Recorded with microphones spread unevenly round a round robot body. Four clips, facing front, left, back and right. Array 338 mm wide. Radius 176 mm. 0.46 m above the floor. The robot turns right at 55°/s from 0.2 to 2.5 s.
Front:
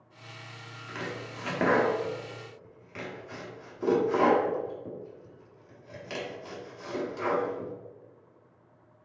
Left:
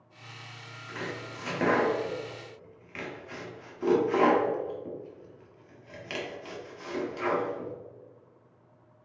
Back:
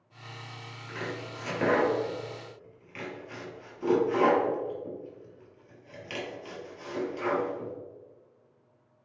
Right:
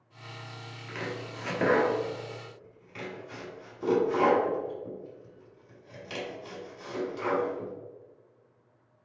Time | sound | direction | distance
0.9 | chopping | 30° right | 1.2 m